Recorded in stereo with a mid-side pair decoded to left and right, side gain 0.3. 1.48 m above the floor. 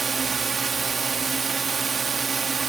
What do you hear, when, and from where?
0.0 s a drone: 55° right